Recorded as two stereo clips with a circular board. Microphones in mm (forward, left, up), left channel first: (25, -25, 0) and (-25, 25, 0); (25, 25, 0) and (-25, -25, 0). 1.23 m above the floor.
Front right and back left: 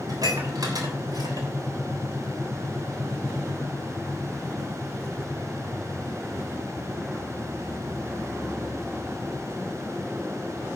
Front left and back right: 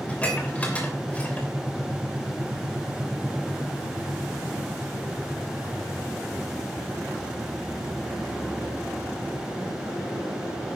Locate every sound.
0.1 s dishes clattering: 115° left, 3 m